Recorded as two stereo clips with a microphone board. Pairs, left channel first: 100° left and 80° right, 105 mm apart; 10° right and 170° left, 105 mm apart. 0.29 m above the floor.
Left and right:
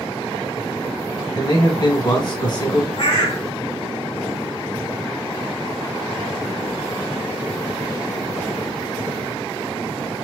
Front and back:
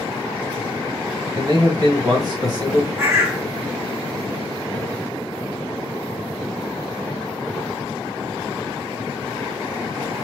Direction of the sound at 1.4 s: 130° left.